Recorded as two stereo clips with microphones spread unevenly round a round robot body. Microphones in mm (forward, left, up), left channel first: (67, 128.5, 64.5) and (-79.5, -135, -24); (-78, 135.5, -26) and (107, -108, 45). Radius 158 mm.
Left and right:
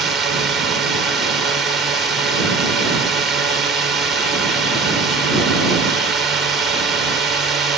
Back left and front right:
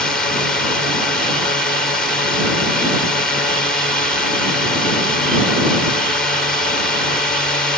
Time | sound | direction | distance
0.0 | a drone | 175° right | ?